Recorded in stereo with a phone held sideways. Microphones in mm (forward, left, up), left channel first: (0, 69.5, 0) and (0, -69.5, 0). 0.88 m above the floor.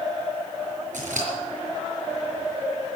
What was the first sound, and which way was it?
Scissors, 75° right (ahead or behind).